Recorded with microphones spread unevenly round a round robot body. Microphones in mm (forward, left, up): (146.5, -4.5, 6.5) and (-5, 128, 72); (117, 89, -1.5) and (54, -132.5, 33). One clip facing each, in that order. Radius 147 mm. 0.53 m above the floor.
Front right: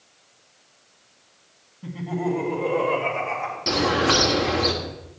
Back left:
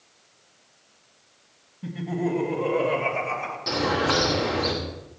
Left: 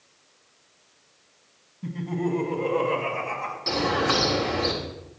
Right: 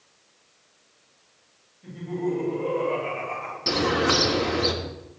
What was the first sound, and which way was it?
Laughter, 70° left.